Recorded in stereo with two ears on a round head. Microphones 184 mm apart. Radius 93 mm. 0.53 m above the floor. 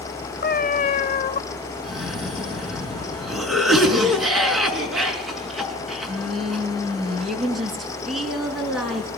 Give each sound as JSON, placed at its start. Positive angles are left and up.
{"t": 0.4, "sound": "a cat meowing", "side_deg": 45, "distance_m": 0.7}
{"t": 1.8, "sound": "a cough", "side_deg": 0, "distance_m": 5.0}